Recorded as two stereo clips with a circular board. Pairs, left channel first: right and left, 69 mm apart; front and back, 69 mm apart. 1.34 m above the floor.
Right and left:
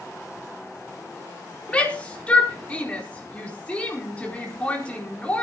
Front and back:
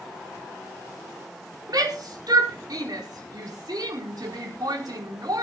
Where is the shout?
160° right, 4.5 m.